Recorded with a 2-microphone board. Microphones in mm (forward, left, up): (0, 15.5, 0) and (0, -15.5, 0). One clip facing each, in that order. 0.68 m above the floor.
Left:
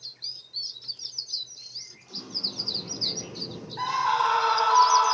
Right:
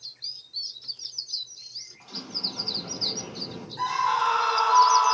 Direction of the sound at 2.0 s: 65° right (ahead or behind).